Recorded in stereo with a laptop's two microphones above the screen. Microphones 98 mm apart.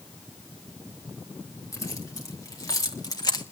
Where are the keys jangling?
35° left (ahead or behind), 2.5 m; by 3.4 s 45° left (ahead or behind), 1.2 m.